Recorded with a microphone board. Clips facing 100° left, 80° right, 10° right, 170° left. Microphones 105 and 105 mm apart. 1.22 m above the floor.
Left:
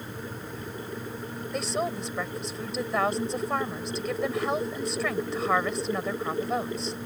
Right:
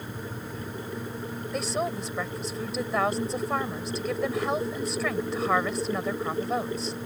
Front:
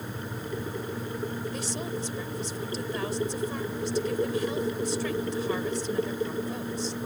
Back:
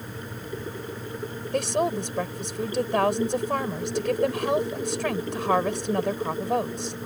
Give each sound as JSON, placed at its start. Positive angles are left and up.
{"t": 1.5, "sound": "a woman speaking", "azimuth_deg": -170}